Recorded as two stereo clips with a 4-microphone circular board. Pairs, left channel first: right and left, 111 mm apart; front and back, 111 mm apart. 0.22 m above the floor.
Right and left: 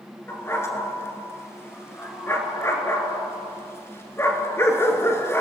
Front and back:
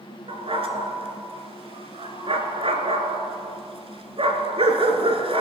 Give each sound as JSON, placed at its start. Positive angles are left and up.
{"t": 0.3, "sound": "a dog barking", "azimuth_deg": -155, "distance_m": 1.5}